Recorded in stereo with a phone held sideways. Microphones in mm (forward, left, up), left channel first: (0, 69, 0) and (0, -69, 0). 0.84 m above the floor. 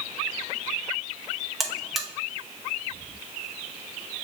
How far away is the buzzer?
About 0.7 m.